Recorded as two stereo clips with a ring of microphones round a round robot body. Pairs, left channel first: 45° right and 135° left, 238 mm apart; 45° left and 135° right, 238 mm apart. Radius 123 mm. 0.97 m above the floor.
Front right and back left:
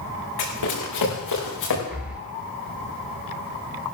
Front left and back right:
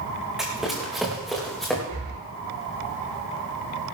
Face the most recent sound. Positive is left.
turn(degrees=-140)